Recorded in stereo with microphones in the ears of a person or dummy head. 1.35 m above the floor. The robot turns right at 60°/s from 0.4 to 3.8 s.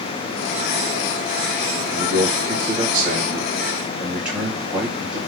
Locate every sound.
1.9 s a man speaking: 115° right, 1.6 m; by 5.2 s 5° right, 1.6 m